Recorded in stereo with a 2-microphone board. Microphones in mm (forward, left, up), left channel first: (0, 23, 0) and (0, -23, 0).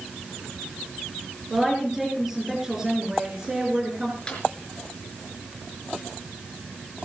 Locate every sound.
1.5 s a woman speaking: centre (ahead or behind), 5 m; by 4.2 s 20° right (ahead or behind), 4.5 m
4.3 s a snare drum: 20° left (ahead or behind), 5 m